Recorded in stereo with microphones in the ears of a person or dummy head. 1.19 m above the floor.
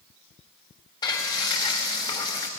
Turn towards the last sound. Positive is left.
turn(degrees=30)  # may be behind; listen again after turning